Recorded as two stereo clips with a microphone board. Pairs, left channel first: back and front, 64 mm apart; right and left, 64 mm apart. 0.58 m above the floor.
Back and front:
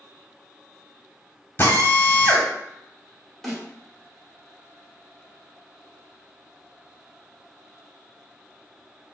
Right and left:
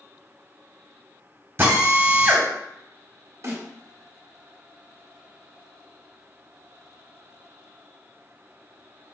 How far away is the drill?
About 0.9 m.